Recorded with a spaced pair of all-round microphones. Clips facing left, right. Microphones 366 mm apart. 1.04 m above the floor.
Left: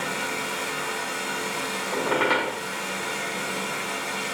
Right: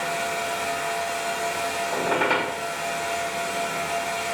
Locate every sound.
0.0 s a fan: 30° left (ahead or behind), 1.5 m
1.9 s a squeak: 5° left (ahead or behind), 0.7 m